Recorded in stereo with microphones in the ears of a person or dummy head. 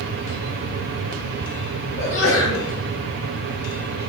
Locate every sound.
2.0 s a sneeze: 85° left, 4 m